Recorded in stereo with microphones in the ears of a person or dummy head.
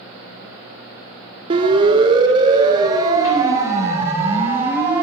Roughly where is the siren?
Right.